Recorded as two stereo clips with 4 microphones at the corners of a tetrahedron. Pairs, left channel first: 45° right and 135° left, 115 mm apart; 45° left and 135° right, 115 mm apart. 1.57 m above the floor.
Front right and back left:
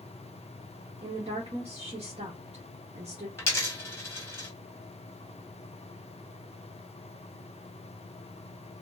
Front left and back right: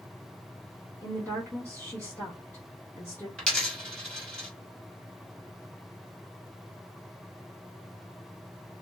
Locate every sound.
1.0 s a woman speaking: 110° left, 0.9 m
3.4 s a dropped coin: 25° right, 1.1 m